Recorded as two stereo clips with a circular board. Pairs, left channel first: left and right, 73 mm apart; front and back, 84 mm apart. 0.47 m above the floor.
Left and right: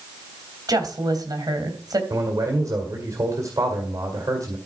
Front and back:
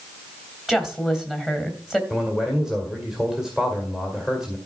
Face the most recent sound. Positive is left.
turn(degrees=-100)